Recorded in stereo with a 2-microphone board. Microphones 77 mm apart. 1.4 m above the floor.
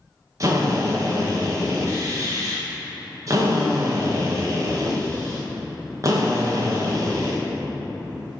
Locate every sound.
0.4 s a drill: 45° right (ahead or behind), 1.9 m